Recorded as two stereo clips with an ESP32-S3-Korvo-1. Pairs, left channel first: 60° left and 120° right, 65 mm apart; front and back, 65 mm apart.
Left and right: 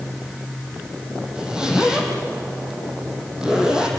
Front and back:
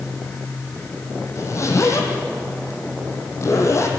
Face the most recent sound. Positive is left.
turn(degrees=-40)